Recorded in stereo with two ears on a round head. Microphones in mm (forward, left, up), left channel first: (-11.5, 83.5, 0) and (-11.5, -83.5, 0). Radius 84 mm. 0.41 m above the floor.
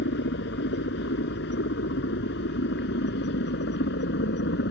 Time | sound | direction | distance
0.0 | a helicopter | 60° left (ahead or behind) | ?